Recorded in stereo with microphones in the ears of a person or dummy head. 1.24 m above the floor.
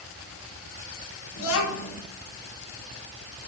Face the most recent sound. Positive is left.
turn(degrees=85)